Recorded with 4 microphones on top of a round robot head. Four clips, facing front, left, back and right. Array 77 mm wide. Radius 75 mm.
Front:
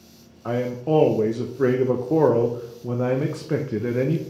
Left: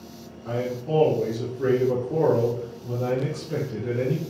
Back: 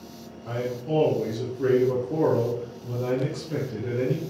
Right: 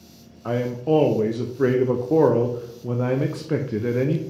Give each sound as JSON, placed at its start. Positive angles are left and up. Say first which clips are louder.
{"t": 0.5, "sound": "a man speaking", "louder": "right 5 dB, front 6 dB", "azimuth_deg": -45, "distance_m": 0.6}